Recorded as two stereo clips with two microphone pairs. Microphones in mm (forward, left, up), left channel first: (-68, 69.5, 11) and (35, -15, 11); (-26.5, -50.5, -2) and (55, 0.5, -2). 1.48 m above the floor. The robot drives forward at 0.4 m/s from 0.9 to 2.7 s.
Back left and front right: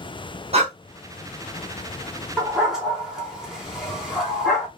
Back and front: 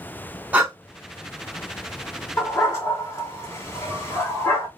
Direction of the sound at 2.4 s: 115° right.